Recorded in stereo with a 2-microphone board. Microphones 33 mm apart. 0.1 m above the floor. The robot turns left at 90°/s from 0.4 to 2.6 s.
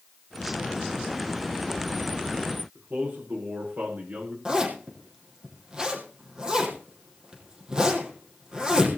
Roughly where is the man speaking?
Right.